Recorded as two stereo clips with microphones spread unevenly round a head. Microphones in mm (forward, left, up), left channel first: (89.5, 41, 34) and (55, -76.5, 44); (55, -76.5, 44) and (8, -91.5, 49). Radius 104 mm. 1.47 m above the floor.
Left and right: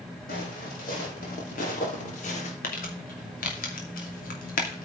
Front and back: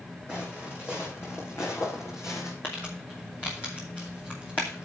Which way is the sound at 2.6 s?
95° left.